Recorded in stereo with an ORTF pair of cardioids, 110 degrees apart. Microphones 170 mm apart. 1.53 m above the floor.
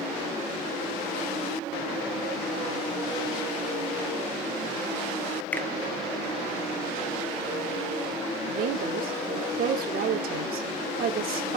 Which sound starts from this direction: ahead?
A finger snap, at 5.5 s.